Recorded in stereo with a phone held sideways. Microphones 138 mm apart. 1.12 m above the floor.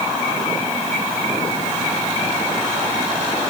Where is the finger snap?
I don't hear a finger snap.